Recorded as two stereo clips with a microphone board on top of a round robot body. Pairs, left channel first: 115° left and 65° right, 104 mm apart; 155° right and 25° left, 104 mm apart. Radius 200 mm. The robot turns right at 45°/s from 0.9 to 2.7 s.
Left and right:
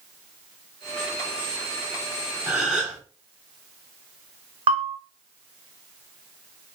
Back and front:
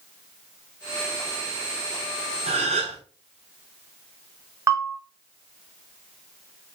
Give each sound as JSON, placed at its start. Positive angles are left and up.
{"t": 2.5, "sound": "a gasp", "azimuth_deg": 5, "distance_m": 3.5}
{"t": 4.7, "sound": "a bell", "azimuth_deg": -40, "distance_m": 1.1}